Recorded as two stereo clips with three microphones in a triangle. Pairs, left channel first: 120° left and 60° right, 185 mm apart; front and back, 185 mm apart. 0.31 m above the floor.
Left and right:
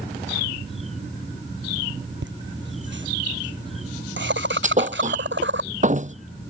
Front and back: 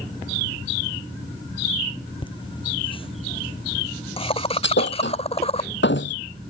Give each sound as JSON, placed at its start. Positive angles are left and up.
{"t": 2.2, "sound": "laughter", "azimuth_deg": -65}
{"t": 4.6, "sound": "a thud", "azimuth_deg": -10}